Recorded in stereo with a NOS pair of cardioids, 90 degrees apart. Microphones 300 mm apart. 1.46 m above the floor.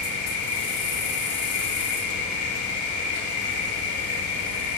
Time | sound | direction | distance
0.0 | an insect | 70° left | 0.9 m